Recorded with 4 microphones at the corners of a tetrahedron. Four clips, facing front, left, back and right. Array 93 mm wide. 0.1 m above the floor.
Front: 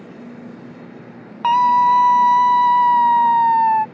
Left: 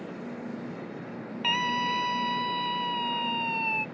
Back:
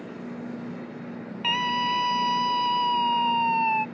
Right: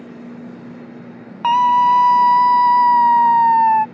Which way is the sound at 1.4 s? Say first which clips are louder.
Right 16 dB, front 13 dB; 45° right.